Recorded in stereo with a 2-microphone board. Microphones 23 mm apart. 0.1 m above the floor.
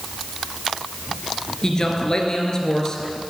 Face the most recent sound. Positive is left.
turn(degrees=30)  # may be behind; listen again after turning